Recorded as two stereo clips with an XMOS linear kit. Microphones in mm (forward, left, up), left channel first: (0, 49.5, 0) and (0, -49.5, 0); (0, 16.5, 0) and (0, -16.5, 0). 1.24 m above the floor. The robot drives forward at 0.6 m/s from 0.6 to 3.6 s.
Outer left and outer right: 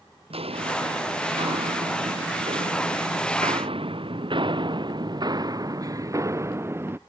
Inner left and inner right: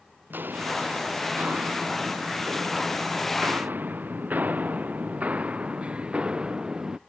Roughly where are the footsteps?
Right.